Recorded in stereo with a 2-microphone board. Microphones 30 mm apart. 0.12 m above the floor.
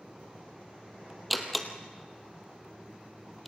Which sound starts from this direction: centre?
A door slam, at 1.3 s.